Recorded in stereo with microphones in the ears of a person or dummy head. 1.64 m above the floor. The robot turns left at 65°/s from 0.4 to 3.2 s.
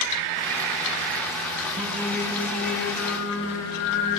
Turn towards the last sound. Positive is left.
turn(degrees=105)